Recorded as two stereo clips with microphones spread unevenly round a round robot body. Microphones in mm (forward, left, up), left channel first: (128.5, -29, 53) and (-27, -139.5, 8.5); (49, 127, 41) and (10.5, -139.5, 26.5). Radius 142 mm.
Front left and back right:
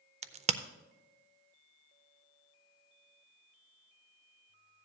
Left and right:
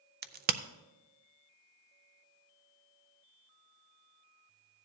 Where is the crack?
135° right, 0.5 m.